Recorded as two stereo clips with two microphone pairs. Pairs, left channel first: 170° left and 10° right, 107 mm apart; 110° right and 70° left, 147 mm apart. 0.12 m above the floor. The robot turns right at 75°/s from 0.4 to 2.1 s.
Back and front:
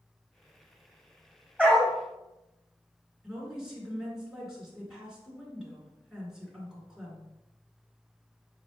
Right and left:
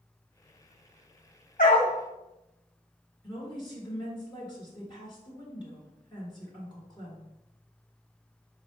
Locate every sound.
1.6 s a dog barking: 110° right, 1.9 m; by 1.9 s 85° right, 1.9 m
3.2 s a woman speaking: 90° right, 1.7 m